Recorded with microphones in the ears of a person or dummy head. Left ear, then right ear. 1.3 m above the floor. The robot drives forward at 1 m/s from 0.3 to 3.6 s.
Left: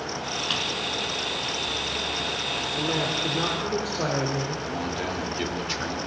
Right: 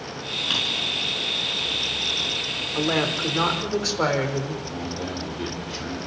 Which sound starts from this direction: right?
A woman speaking, at 2.8 s.